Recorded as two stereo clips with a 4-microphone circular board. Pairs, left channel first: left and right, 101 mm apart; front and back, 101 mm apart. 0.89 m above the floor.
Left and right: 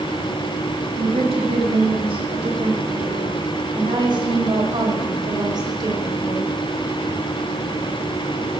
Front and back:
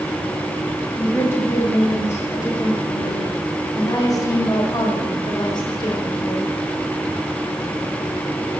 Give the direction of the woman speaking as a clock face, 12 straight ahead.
2 o'clock.